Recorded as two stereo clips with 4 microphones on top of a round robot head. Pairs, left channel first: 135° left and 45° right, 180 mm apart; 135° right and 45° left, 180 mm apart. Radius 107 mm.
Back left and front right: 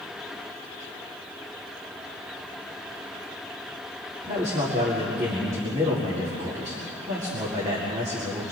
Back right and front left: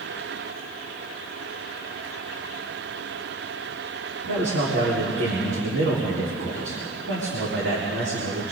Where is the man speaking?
25° left, 4.5 m.